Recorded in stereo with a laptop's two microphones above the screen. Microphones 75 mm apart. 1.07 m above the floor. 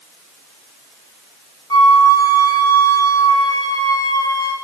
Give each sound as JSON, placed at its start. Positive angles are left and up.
{"t": 1.7, "sound": "a flute", "side_deg": 65, "distance_m": 4.5}